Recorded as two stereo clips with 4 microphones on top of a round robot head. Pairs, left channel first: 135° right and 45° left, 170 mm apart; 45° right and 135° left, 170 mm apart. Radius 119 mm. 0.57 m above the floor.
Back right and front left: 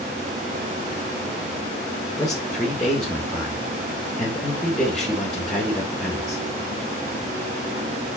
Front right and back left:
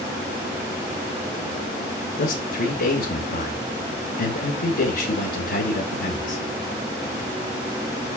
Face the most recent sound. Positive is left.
turn(degrees=-45)